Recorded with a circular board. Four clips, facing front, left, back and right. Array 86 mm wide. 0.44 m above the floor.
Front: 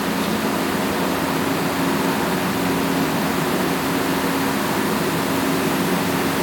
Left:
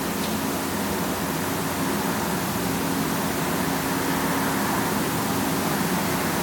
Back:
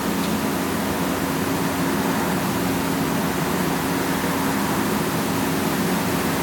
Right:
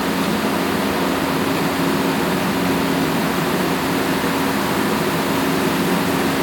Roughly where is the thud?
No thud in this recording.